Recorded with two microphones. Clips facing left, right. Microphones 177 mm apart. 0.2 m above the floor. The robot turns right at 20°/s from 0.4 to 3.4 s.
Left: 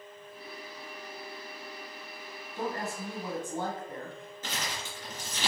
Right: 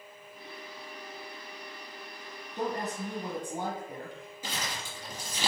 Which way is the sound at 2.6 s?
20° right (ahead or behind).